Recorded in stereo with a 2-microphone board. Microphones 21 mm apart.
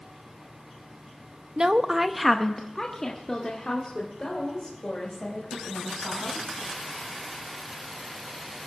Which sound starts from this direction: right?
A woman speaking, at 1.6 s.